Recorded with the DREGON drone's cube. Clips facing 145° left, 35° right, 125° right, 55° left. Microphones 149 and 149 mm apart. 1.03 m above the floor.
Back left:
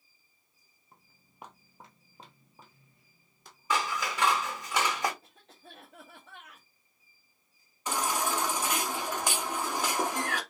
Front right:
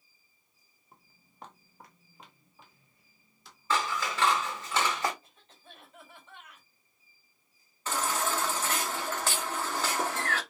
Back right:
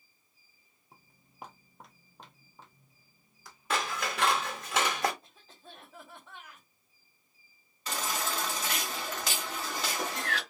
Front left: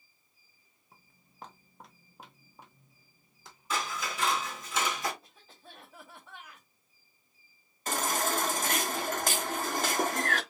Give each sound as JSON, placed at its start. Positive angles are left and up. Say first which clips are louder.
{"t": 0.9, "sound": "footsteps", "louder": "front right 1 dB, back right 2 dB", "azimuth_deg": -115, "distance_m": 1.0}
{"t": 3.7, "sound": "scissors", "louder": "even, back right 2 dB", "azimuth_deg": -140, "distance_m": 1.6}
{"t": 5.2, "sound": "a cough", "louder": "back left 3 dB, back right 1 dB", "azimuth_deg": 145, "distance_m": 1.4}
{"t": 7.9, "sound": "a baby crying", "louder": "even, front left 4 dB", "azimuth_deg": 75, "distance_m": 0.7}